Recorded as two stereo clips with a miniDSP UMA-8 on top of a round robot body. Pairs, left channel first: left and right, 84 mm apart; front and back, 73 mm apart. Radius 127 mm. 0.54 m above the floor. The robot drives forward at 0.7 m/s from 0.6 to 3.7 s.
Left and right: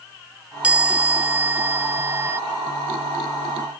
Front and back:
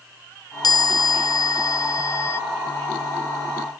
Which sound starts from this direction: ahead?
A chime, at 0.6 s.